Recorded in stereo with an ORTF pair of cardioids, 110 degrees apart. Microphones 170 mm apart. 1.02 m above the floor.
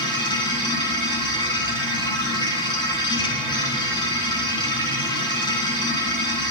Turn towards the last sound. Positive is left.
turn(degrees=25)